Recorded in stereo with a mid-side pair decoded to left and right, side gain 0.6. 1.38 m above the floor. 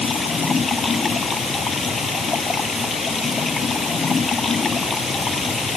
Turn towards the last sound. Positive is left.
turn(degrees=25)